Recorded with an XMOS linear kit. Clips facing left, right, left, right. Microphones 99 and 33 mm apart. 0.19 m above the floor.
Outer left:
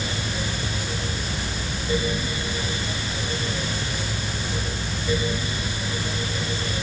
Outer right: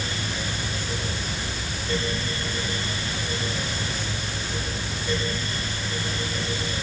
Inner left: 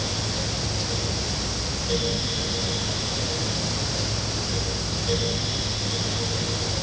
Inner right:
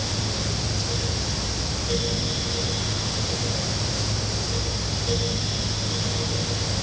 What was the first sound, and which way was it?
Only background noise.